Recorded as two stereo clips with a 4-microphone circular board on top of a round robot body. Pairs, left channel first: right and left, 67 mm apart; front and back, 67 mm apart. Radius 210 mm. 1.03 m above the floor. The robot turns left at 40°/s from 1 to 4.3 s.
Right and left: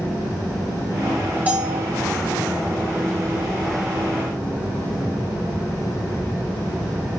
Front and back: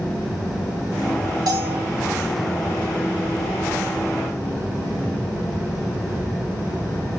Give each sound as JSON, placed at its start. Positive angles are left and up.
{"t": 1.5, "sound": "a bell", "azimuth_deg": 160, "distance_m": 3.0}